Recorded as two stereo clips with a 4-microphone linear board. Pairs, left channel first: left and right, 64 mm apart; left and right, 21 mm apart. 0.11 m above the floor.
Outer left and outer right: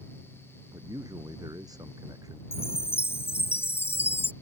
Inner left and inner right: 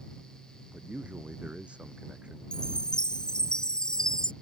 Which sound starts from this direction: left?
A chime, at 2.5 s.